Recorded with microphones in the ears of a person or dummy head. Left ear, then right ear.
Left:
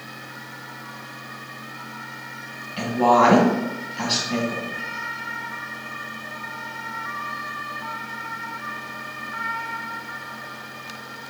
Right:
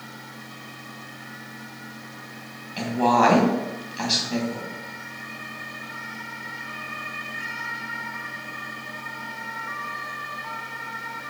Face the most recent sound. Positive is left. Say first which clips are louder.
# left 3 dB
turn(degrees=-10)  # may be behind; listen again after turning